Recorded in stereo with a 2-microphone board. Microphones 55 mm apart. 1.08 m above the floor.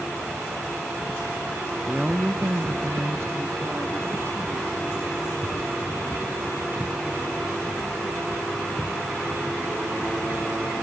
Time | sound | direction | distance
1.9 | a woman speaking | centre (ahead or behind) | 0.9 m